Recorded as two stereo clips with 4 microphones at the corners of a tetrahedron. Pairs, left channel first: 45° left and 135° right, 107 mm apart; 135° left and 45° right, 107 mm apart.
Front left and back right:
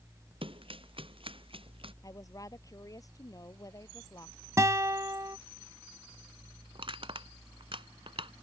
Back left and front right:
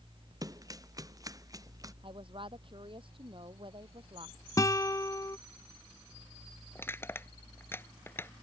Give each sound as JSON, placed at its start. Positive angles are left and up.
{"t": 0.4, "sound": "running footsteps", "azimuth_deg": -100}
{"t": 2.0, "sound": "a woman speaking", "azimuth_deg": -10}
{"t": 4.6, "sound": "a guitar", "azimuth_deg": 175}
{"t": 6.8, "sound": "crushing", "azimuth_deg": -160}